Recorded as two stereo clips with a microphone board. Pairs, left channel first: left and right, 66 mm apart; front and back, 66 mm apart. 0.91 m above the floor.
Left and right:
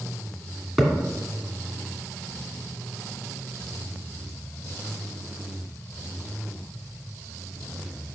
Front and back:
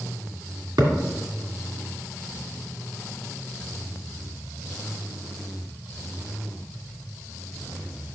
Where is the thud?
Straight behind, 2.5 m.